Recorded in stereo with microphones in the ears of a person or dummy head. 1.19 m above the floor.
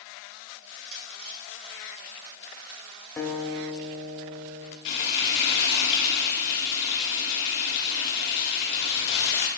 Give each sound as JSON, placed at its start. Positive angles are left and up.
{"t": 0.6, "sound": "crushing", "side_deg": -70, "distance_m": 3.0}
{"t": 3.2, "sound": "a guitar", "side_deg": 15, "distance_m": 0.7}
{"t": 4.8, "sound": "frying", "side_deg": 65, "distance_m": 1.3}